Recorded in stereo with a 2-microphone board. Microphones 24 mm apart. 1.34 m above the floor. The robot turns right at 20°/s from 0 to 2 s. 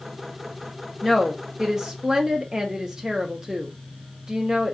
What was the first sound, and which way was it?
A woman speaking, centre (ahead or behind).